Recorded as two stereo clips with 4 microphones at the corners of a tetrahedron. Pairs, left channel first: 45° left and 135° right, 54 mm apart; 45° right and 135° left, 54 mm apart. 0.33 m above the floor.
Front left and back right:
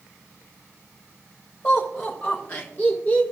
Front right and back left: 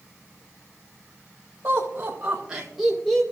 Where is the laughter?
90° left, 1.8 m; by 3.2 s 20° left, 1.2 m.